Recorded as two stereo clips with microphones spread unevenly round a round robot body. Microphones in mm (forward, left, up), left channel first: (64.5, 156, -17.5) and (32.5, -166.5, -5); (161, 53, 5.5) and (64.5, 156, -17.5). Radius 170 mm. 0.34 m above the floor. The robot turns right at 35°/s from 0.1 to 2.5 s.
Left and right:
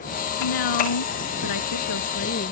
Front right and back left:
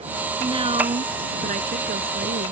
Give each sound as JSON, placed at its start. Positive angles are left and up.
{"t": 0.4, "sound": "a woman speaking", "azimuth_deg": 75}